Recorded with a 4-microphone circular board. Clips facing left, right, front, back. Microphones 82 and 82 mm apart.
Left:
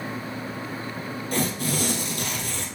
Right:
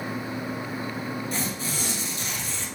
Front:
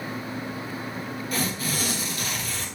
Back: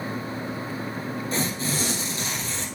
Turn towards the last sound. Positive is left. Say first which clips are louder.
# left 5 dB, even
turn(degrees=115)